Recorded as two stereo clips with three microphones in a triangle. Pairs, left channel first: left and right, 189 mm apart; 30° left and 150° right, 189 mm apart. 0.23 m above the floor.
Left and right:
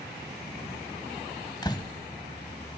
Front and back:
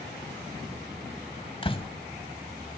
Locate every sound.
1.6 s a door slam: 50° left, 0.9 m